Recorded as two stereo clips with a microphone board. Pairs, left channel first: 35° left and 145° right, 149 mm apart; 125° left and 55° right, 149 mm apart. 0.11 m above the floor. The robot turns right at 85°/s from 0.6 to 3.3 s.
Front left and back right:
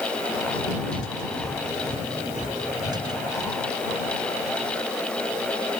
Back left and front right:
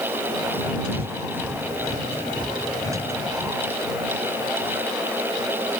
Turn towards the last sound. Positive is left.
turn(degrees=100)